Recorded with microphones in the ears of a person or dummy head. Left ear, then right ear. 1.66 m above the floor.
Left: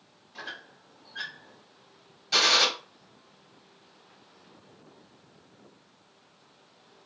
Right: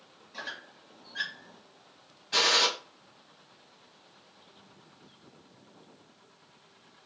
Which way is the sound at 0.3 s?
35° right (ahead or behind).